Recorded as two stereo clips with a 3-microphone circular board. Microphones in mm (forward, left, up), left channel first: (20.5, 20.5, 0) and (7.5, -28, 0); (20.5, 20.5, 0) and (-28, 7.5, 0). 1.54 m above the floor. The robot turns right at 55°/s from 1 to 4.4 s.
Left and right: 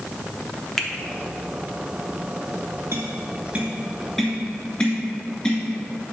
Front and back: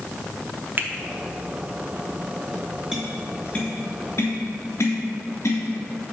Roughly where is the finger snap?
Behind left.